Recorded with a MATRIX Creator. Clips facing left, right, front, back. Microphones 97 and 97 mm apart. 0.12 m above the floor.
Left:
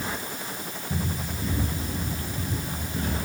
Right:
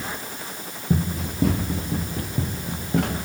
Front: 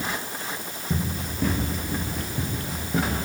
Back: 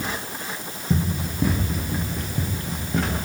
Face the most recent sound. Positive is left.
turn(degrees=-85)